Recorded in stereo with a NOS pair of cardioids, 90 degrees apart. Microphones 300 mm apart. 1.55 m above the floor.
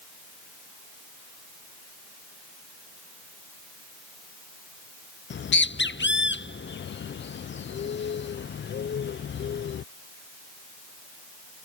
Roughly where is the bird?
Ahead left.